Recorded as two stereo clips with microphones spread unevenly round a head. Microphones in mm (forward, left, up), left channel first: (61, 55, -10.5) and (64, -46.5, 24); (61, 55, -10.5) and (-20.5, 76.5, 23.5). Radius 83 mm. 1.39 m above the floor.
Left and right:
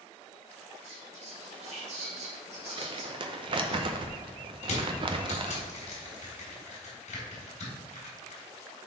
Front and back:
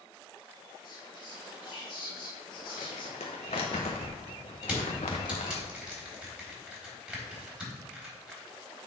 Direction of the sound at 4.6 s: 95° left.